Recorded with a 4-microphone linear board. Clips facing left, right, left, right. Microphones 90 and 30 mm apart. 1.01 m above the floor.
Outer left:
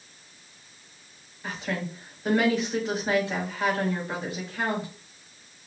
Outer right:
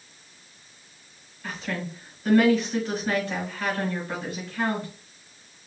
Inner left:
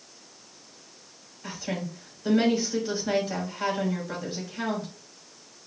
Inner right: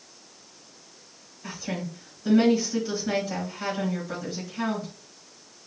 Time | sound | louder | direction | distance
1.4 | a woman speaking | even, even | 20° left (ahead or behind) | 3.5 m